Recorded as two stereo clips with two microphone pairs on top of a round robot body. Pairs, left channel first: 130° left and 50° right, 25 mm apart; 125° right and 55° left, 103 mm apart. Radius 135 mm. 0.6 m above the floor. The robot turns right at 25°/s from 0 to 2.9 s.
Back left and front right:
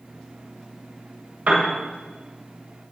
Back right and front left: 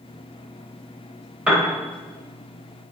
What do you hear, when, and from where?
1.5 s a piano: 25° right, 1.7 m; by 1.7 s 20° right, 1.7 m